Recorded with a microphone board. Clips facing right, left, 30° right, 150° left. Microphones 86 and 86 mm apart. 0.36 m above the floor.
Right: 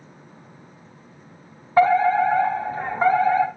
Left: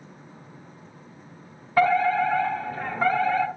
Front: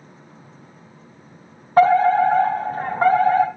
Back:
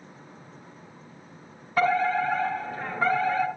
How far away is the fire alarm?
About 2.5 m.